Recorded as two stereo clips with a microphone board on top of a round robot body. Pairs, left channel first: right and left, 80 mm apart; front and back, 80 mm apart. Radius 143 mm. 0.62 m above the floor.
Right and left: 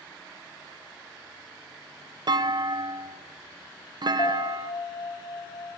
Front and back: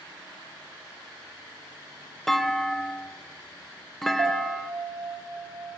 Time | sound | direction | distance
2.3 | a clunk | 85° left | 0.8 m
4.2 | a piano | 125° right | 2.5 m